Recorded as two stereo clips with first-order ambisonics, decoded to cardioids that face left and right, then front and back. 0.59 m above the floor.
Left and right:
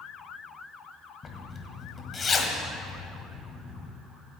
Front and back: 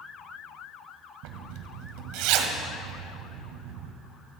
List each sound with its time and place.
1.2 s a zipper: 160° left, 1.5 m